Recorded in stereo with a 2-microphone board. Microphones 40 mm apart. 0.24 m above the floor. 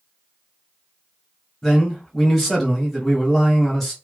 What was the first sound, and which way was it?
A man speaking, 5° left (ahead or behind).